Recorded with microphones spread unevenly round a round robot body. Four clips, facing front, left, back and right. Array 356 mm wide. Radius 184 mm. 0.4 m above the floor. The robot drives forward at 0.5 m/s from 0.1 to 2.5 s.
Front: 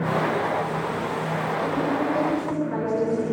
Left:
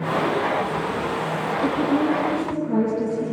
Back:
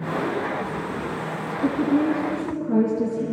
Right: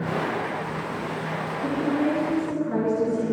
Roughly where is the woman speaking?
Behind left.